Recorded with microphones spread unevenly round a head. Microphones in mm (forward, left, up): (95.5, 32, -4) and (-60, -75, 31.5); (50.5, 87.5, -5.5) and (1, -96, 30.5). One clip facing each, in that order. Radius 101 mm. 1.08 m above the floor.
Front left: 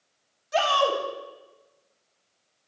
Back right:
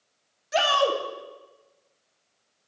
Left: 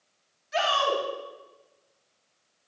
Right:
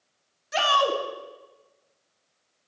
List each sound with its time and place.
0.5 s a shout: 80° right, 2.5 m